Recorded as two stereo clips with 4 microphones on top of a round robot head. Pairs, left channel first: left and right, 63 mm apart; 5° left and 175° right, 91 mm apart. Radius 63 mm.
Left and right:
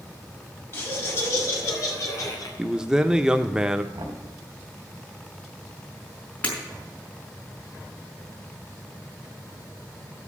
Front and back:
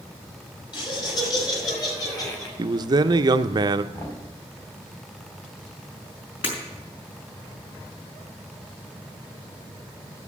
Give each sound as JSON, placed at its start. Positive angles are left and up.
{"t": 0.7, "sound": "laughter", "azimuth_deg": 40, "distance_m": 5.5}
{"t": 2.6, "sound": "a man speaking", "azimuth_deg": -165, "distance_m": 0.5}
{"t": 3.9, "sound": "knocking", "azimuth_deg": -65, "distance_m": 4.5}
{"t": 6.4, "sound": "breaking glass", "azimuth_deg": 25, "distance_m": 5.0}